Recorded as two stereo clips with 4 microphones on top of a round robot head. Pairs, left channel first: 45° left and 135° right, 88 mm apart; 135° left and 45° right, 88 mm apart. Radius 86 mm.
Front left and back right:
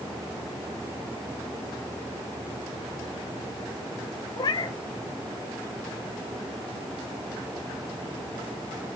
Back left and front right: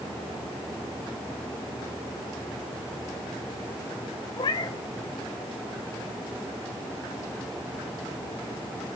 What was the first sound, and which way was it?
A cat meowing, 85° left.